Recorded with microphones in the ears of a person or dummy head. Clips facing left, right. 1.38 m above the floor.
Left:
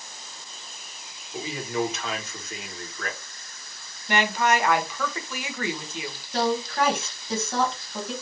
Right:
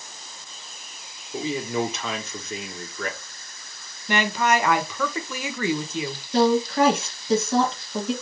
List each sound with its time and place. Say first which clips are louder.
1.3 s a man speaking: right 3 dB; 80° right, 1.6 m
4.1 s a woman speaking: right 1 dB; 75° right (ahead or behind), 1.2 m
6.3 s a woman speaking: right 6 dB; 70° right (ahead or behind), 1.9 m